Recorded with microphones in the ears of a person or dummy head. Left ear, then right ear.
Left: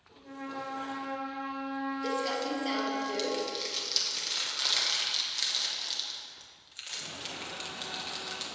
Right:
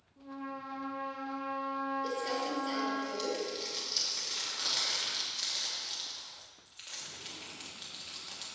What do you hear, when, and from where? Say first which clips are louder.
0.2 s a trumpet: left 3 dB; 20° left (ahead or behind), 3.5 m
2.0 s crumpling: left 3 dB; 55° left (ahead or behind), 2 m